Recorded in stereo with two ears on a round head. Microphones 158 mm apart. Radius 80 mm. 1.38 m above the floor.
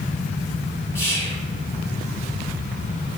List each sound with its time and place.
0.9 s whispering: 10° right (ahead or behind), 0.5 m